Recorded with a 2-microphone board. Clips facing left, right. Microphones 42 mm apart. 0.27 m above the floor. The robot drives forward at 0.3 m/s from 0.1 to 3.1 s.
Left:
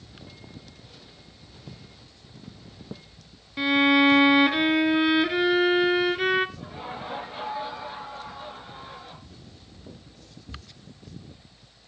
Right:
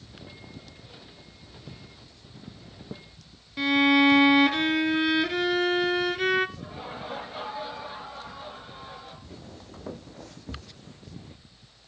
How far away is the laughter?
About 5 m.